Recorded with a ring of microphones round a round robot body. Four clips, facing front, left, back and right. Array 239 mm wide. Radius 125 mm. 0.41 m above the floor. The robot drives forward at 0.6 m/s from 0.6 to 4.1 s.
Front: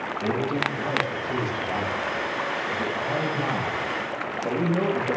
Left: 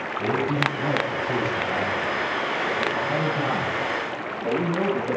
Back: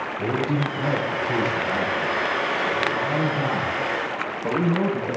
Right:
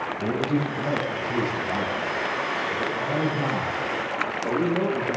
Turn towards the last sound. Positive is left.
turn(degrees=165)